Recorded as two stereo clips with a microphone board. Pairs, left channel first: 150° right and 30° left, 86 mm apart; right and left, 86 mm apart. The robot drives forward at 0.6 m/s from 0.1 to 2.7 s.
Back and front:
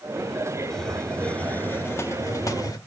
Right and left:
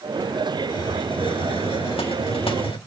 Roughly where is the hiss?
Ahead right.